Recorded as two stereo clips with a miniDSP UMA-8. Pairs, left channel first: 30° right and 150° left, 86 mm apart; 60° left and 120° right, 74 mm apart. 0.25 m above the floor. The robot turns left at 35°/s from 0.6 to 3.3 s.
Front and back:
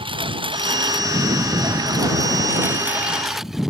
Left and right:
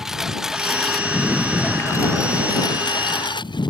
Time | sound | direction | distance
0.0 | a lawn mower | 155° left | ?